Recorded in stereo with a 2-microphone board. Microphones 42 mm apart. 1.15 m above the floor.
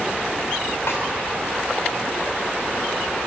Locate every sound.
0.9 s a snare drum: 75° left (ahead or behind), 5.5 m